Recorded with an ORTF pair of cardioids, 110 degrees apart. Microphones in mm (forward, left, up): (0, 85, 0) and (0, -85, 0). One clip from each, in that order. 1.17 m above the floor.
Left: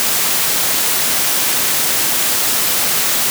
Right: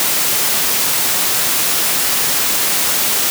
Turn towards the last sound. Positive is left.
No sound to turn to.